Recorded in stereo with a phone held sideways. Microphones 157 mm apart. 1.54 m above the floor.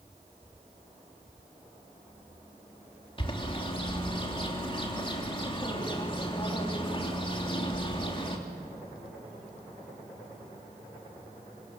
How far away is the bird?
About 3 m.